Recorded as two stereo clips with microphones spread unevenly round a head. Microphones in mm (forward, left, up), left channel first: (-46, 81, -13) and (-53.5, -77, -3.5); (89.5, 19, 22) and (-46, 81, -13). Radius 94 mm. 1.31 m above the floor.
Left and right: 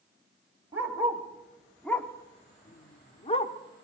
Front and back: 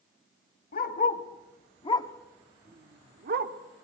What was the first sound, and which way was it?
A dog barking, 15° right.